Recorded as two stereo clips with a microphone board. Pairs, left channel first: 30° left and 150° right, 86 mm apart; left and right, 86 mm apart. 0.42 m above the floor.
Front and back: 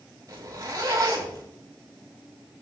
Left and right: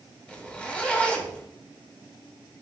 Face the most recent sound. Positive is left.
turn(degrees=165)